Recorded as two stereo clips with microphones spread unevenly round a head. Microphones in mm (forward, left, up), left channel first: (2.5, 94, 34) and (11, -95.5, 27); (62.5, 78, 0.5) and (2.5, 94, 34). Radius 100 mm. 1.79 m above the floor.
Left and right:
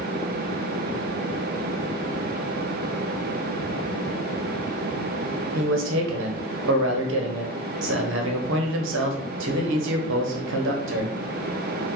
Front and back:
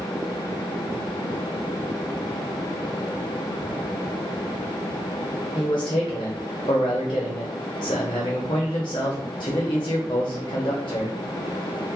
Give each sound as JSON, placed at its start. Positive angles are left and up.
{"t": 5.5, "sound": "a man speaking", "azimuth_deg": -70, "distance_m": 0.6}